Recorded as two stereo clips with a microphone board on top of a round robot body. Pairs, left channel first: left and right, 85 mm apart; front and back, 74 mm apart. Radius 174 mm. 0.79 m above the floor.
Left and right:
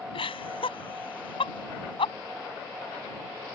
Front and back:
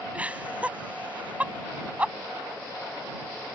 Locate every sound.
0.1 s laughter: 105° left